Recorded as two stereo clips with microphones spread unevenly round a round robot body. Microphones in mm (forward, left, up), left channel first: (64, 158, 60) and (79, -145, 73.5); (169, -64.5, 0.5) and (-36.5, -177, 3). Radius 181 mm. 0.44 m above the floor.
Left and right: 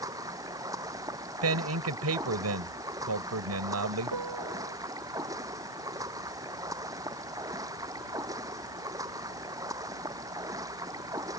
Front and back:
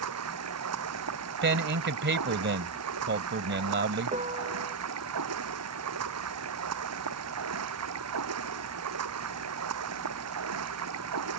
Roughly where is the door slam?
I don't hear a door slam.